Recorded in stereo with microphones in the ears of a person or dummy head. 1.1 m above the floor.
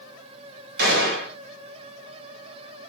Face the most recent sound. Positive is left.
turn(degrees=-55)  # may be behind; listen again after turning